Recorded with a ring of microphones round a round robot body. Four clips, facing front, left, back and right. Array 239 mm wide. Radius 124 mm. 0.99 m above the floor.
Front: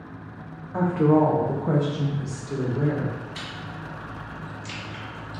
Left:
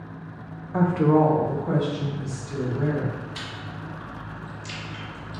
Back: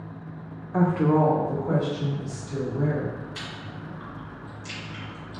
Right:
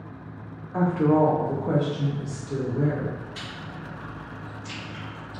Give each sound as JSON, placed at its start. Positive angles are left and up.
{"t": 0.7, "sound": "a woman speaking", "azimuth_deg": 130, "distance_m": 0.5}
{"t": 3.4, "sound": "chewing", "azimuth_deg": 65, "distance_m": 1.3}